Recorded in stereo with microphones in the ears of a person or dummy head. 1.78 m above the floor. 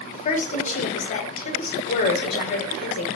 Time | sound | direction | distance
0.1 | a woman speaking | 35° left (ahead or behind) | 0.9 m